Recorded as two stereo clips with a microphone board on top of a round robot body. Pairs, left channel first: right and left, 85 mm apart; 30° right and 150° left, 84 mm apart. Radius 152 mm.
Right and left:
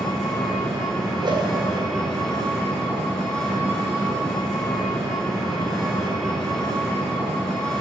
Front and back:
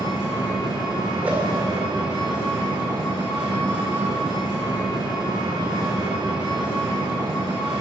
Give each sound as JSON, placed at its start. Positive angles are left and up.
{"t": 0.0, "sound": "an engine running", "azimuth_deg": -175, "distance_m": 3.0}
{"t": 1.2, "sound": "a whoosh", "azimuth_deg": 80, "distance_m": 2.0}